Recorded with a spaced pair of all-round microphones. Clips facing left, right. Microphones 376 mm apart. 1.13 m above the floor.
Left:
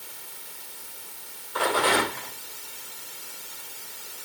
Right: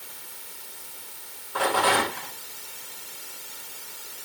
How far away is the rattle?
About 7.5 m.